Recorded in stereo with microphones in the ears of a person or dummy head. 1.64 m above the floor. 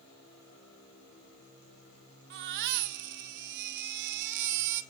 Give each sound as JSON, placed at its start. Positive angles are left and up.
{"t": 2.3, "sound": "a baby crying", "side_deg": -60, "distance_m": 1.3}